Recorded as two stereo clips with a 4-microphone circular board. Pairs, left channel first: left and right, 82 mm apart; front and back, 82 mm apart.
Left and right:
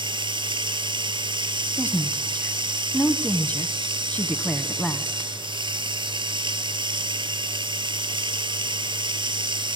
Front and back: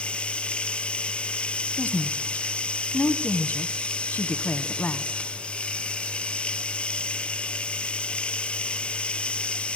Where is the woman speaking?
40° left, 1.2 m.